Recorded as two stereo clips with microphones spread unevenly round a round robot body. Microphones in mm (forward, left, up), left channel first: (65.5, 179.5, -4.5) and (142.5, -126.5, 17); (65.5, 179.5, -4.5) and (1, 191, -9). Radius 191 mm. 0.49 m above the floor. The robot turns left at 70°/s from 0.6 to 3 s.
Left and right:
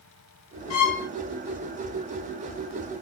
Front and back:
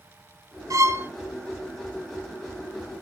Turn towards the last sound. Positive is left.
turn(degrees=-20)